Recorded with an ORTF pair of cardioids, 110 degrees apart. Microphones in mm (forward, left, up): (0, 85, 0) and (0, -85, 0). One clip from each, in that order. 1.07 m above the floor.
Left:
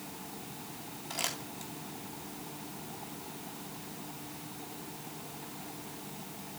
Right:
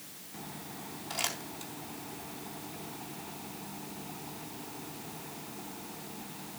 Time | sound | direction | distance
1.1 | crumpling | 5° right | 3.5 m